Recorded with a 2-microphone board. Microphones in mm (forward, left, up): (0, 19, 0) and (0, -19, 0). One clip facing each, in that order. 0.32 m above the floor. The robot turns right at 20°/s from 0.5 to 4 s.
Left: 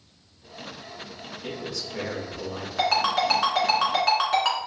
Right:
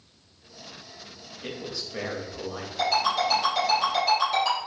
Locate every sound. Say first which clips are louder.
1.4 s a man speaking: left 1 dB; 20° right (ahead or behind), 1.0 m; by 2.7 s 5° right (ahead or behind), 1.0 m
2.8 s a ringtone: left 1 dB; 75° left (ahead or behind), 1.8 m; by 4.6 s 60° left (ahead or behind), 1.8 m